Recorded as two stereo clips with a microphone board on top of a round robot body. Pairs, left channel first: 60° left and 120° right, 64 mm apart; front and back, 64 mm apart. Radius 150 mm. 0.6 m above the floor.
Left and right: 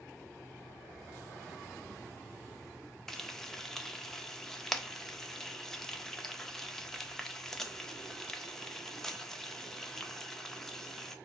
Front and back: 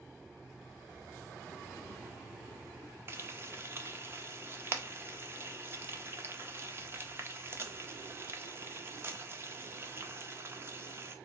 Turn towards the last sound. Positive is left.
turn(degrees=140)